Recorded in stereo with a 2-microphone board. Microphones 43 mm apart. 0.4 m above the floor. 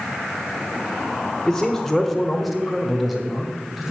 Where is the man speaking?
10° left (ahead or behind), 1.0 m; by 3.9 s 5° right (ahead or behind), 3 m.